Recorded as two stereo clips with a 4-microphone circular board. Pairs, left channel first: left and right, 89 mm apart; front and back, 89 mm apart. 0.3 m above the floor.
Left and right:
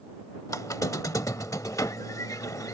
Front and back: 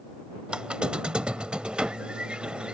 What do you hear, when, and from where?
0.5 s a squeak: 105° left